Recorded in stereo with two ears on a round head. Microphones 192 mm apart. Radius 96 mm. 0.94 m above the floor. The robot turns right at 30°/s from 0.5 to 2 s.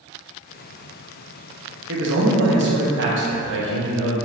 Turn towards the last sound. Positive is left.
turn(degrees=-55)  # may be behind; listen again after turning